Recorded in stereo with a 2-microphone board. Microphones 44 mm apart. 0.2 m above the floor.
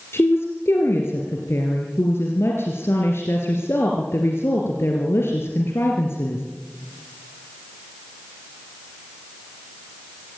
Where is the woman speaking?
70° left (ahead or behind), 3 m.